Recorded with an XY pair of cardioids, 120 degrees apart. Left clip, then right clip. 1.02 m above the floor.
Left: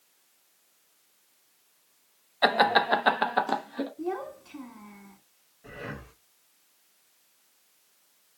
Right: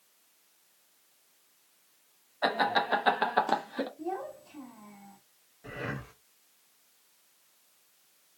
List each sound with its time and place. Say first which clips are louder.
2.4 s laughter: left 5 dB; 55° left, 0.9 m; by 3.9 s 20° right, 0.9 m
4.0 s a child speaking: left 3 dB; 50° left, 1.2 m
5.6 s breathing: right 2 dB; 20° right, 0.6 m